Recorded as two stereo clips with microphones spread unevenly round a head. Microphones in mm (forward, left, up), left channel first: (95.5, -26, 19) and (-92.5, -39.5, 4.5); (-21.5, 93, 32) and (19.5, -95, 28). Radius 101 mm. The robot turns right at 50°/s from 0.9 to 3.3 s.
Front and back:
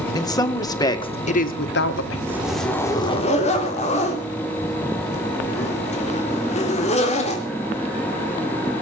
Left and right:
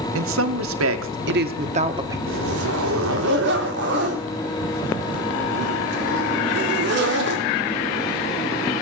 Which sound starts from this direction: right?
A zipper, at 2.3 s.